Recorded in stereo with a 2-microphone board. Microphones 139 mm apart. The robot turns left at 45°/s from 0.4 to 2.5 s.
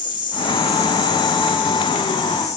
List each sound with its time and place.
0.0 s an insect: 145° left, 5 m; by 2.6 s 50° left, 5 m